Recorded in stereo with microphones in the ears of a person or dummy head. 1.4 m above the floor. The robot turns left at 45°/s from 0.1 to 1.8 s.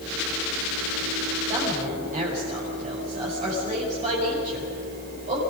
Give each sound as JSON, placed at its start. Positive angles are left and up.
{"t": 1.5, "sound": "a woman speaking", "side_deg": -30, "distance_m": 6.0}